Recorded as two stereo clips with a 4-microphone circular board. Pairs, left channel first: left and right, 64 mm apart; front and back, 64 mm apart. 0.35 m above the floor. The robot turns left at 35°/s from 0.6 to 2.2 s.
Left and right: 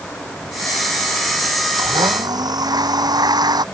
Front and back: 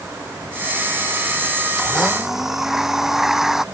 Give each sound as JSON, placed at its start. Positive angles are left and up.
{"t": 1.8, "sound": "a blender", "azimuth_deg": -80}